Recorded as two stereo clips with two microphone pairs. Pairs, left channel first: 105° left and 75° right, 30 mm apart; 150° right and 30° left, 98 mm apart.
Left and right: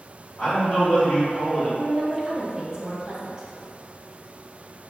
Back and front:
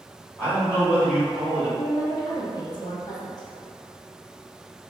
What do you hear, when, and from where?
0.4 s a man speaking: 135° left, 1.8 m
1.8 s a woman speaking: 130° right, 0.7 m